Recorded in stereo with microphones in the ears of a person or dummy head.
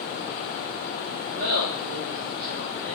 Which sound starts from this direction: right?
Laughter, at 1.3 s.